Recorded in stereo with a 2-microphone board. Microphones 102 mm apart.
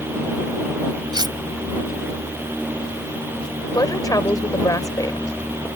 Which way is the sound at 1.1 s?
45° right (ahead or behind).